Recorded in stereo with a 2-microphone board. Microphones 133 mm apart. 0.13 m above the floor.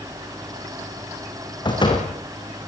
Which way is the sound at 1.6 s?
35° left (ahead or behind).